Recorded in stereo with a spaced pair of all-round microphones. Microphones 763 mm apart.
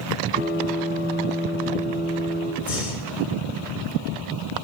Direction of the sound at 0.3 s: 10° right (ahead or behind).